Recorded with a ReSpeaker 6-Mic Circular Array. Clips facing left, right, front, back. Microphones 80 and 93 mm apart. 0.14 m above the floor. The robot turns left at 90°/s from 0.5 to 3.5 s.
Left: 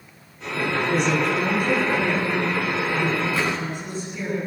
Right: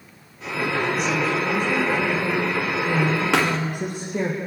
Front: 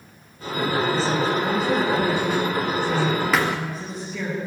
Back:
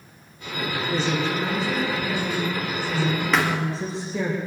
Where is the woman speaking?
120° left, 8 m; by 4.3 s 115° right, 8 m.